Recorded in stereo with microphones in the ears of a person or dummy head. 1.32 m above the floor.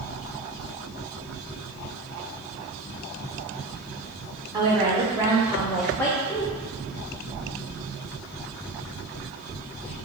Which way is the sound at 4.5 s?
20° right (ahead or behind).